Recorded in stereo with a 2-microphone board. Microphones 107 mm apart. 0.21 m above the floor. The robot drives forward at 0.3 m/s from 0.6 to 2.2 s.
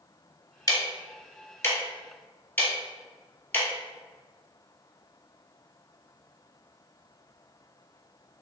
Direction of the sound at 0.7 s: 35° left (ahead or behind).